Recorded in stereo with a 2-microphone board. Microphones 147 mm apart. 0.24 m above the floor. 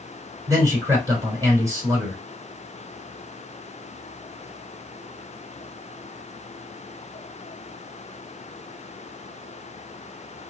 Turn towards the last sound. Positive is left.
turn(degrees=-25)  # may be behind; listen again after turning